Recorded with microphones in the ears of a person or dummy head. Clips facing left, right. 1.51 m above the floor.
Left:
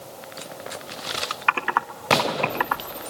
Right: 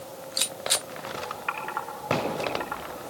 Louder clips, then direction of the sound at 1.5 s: Left 7 dB; 70° left (ahead or behind).